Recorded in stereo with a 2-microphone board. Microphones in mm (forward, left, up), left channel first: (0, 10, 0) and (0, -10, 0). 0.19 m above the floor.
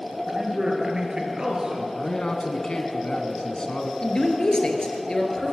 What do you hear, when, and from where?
0.3 s a man speaking: 35° right (ahead or behind), 3 m
1.9 s a man speaking: 40° left (ahead or behind), 1.7 m
4.0 s a man speaking: 40° left (ahead or behind), 2.5 m